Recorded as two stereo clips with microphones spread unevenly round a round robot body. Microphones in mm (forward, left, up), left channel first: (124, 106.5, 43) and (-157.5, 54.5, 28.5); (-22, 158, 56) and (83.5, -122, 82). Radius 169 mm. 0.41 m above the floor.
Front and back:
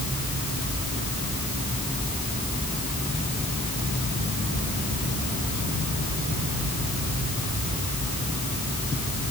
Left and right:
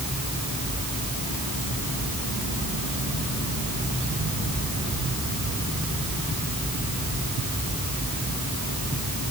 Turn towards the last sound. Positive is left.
No sound to turn to.